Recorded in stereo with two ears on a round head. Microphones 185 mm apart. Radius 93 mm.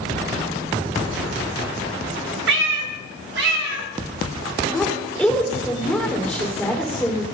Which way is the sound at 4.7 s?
5° left (ahead or behind).